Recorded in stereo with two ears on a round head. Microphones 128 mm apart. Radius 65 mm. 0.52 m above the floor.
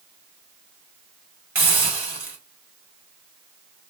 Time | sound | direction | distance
1.6 | a hiss | 15° right (ahead or behind) | 1.6 m